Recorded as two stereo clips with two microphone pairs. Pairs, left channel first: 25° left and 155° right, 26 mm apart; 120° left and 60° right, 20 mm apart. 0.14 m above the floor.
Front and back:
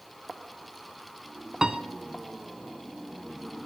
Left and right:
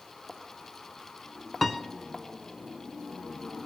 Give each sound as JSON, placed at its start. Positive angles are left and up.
{"t": 1.6, "sound": "a piano", "azimuth_deg": -165, "distance_m": 0.7}